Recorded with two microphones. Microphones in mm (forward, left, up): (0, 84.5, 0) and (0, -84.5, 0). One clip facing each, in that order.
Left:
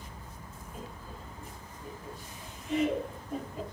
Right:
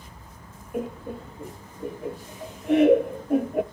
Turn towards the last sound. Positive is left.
turn(degrees=-65)  # may be behind; listen again after turning